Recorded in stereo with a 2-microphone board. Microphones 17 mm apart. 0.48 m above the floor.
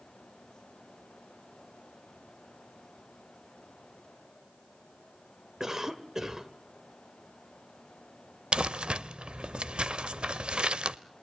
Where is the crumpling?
80° right, 0.6 m.